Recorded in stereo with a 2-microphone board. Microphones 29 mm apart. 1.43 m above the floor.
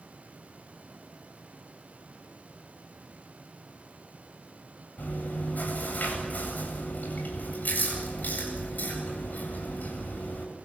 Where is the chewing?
65° left (ahead or behind), 8.5 m.